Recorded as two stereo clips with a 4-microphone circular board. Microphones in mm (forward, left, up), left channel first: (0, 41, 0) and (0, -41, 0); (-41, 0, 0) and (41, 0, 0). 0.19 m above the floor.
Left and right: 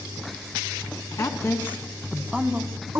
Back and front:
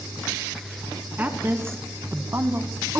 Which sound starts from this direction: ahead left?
A woman speaking, at 1.2 s.